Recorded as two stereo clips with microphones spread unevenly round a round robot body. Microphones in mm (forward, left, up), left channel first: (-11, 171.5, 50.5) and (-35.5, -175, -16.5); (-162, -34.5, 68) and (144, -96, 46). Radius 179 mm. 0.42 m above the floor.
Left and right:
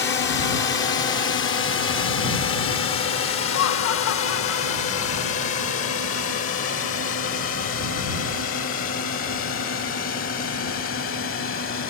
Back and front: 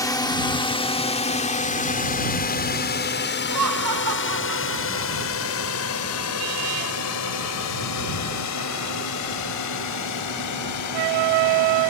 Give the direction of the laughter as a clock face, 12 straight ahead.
11 o'clock.